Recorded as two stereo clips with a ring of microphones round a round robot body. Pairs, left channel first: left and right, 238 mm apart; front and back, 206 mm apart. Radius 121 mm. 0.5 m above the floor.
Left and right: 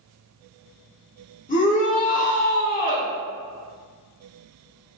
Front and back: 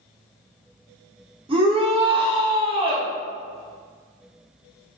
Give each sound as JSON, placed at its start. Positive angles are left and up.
{"t": 1.5, "sound": "a shout", "azimuth_deg": 130, "distance_m": 1.4}